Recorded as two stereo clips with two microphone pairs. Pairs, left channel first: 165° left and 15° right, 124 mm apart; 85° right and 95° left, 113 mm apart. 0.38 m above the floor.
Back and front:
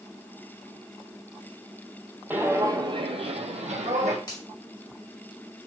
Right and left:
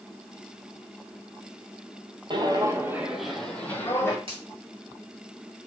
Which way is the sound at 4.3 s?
115° left.